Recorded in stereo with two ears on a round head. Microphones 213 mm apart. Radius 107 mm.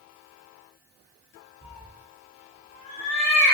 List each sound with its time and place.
1.6 s a cat meowing: 15° left (ahead or behind), 1.1 m; by 3.5 s 50° left (ahead or behind), 1.0 m